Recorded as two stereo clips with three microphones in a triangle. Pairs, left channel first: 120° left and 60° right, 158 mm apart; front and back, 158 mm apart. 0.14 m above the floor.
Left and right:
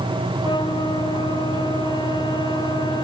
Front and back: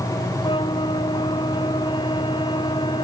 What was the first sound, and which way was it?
A flute, 60° left.